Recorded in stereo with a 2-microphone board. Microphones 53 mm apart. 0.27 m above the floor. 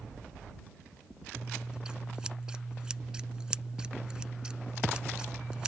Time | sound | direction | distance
1.4 | scissors | 15° right (ahead or behind) | ?